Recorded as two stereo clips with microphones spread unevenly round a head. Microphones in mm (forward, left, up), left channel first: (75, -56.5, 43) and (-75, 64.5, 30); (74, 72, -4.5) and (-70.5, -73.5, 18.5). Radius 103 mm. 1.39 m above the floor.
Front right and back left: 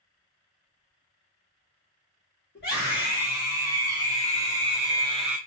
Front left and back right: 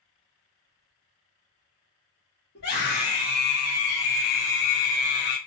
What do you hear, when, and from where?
2.5 s a scream: 5° left, 2.0 m; by 5.4 s 70° left, 0.5 m